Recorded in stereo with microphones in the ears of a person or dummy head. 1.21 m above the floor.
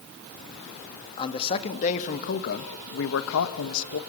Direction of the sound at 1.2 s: 25° left (ahead or behind).